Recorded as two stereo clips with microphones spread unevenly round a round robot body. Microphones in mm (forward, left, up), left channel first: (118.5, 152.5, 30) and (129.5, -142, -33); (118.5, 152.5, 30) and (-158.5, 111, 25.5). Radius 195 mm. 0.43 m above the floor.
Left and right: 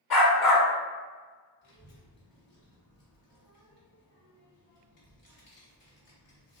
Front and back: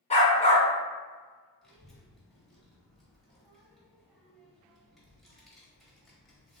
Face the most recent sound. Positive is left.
turn(degrees=100)